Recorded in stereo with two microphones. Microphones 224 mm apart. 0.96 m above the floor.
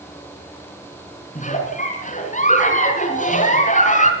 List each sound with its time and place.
1.4 s a giggle: 35° left (ahead or behind), 3 m